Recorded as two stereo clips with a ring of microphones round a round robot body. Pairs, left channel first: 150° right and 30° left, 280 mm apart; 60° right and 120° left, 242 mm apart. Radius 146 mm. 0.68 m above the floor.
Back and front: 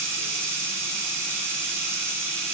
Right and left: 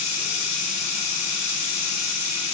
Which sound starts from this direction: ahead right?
Running water, at 0.0 s.